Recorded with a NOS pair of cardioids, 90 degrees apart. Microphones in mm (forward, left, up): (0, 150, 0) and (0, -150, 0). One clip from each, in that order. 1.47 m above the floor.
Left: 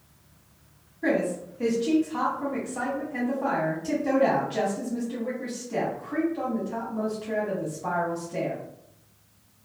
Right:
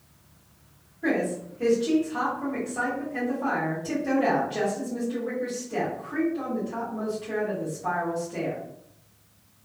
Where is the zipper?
No zipper in this recording.